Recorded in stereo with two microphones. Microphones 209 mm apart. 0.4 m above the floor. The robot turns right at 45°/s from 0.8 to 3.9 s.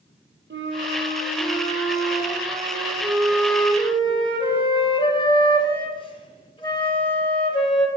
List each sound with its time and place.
0.5 s a flute: 115° right, 0.6 m; by 7.9 s 25° left, 0.6 m